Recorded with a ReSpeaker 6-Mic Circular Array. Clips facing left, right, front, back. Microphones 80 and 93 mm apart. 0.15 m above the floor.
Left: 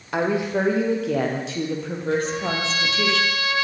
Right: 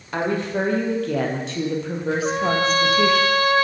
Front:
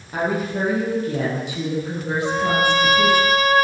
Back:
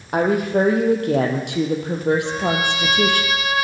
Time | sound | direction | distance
0.1 | a woman speaking | 170° left | 5.5 m
2.2 | a trumpet | 45° right | 1.3 m